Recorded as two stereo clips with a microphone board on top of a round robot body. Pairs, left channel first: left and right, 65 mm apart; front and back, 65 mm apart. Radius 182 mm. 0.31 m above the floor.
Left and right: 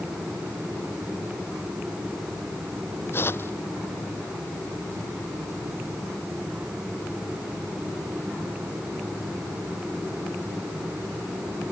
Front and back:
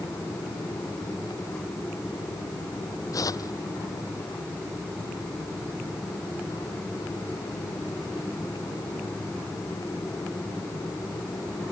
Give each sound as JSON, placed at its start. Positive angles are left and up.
{"t": 3.1, "sound": "tearing paper", "azimuth_deg": 35}